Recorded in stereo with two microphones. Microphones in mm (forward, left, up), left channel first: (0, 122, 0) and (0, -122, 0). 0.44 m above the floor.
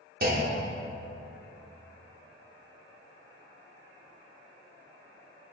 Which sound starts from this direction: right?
A clunk, at 0.2 s.